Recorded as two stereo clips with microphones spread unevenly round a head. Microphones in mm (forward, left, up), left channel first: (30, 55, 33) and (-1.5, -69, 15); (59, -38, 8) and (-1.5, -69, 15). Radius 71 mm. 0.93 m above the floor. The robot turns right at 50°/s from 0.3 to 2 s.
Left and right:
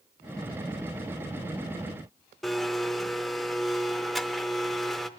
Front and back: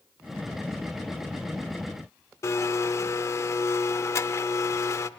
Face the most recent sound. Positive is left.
turn(degrees=-5)